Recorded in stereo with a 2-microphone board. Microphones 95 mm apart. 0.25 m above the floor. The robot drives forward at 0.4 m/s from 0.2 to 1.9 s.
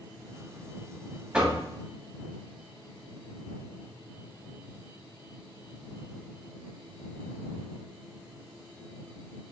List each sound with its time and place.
1.3 s knocking: 10° right (ahead or behind), 0.9 m